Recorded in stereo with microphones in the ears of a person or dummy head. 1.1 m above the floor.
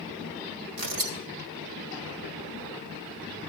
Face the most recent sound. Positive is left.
turn(degrees=-80)